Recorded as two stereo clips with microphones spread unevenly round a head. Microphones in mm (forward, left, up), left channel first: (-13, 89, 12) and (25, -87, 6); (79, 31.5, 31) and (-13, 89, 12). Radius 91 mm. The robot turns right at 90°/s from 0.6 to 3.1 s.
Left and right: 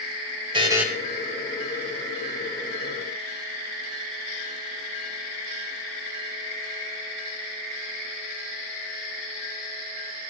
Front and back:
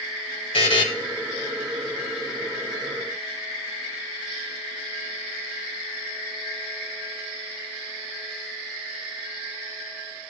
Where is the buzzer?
15° right, 1.6 m; by 0.9 s 10° left, 1.6 m.